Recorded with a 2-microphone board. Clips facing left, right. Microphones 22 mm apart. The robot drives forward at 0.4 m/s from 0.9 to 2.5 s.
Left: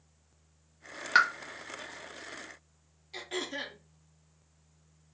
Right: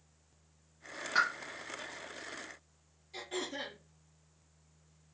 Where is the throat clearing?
40° left (ahead or behind), 0.8 m.